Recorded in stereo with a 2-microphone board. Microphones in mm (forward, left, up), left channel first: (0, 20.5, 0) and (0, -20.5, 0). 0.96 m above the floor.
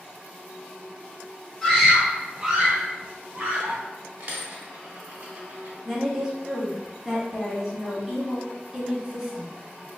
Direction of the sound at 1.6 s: 5° left (ahead or behind).